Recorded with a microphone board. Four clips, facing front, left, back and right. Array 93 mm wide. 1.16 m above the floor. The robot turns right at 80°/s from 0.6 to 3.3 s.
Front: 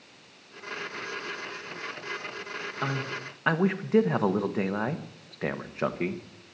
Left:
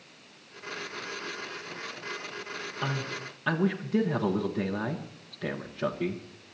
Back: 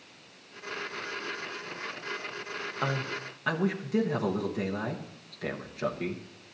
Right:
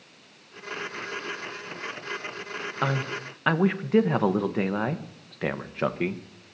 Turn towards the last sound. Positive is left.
turn(degrees=-60)